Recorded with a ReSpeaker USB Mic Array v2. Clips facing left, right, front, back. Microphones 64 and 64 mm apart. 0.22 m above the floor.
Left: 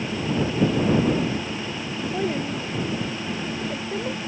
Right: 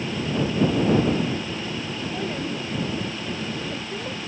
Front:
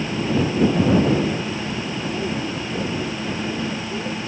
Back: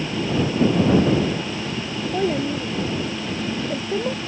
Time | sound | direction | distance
2.1 | a child speaking | 165° left | ?